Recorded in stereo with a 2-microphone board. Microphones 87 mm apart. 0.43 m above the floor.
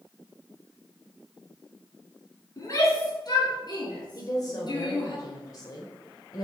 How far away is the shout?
About 4 m.